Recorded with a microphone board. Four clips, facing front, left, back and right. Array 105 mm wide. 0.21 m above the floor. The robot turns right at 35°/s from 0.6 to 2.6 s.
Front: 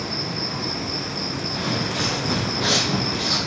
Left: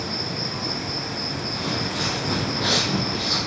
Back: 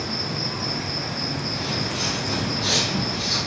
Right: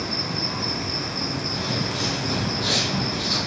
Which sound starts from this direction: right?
An insect, at 0.0 s.